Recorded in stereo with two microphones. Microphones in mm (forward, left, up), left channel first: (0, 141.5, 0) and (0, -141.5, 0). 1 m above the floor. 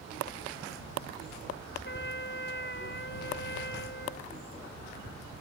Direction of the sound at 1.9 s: 40° left (ahead or behind).